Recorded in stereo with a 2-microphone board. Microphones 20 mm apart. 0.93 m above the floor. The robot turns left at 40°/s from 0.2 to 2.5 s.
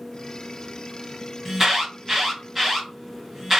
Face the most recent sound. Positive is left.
turn(degrees=-20)  # may be behind; listen again after turning